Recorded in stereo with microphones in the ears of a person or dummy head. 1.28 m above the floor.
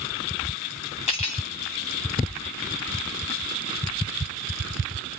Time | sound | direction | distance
1.1 | cutlery clinking | 30° left (ahead or behind) | 0.5 m